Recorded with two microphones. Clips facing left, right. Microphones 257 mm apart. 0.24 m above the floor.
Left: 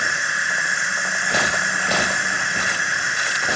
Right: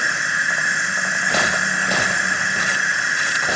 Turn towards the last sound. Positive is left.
turn(degrees=-65)  # may be behind; listen again after turning